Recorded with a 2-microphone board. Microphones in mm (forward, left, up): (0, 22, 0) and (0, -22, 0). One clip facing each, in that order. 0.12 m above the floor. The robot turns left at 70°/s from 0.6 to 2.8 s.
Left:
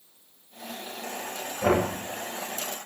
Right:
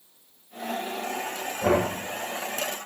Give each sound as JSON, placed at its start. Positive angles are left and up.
{"t": 1.6, "sound": "knocking", "side_deg": -5, "distance_m": 8.5}